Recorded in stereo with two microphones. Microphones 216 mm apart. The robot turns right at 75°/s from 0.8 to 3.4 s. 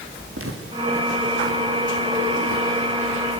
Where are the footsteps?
85° right, 4.5 m; by 3.2 s 85° left, 5.5 m.